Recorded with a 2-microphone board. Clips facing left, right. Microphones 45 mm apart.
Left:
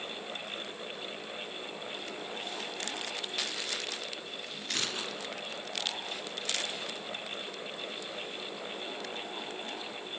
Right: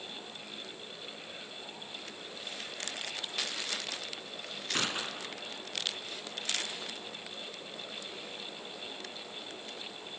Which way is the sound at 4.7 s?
25° right (ahead or behind).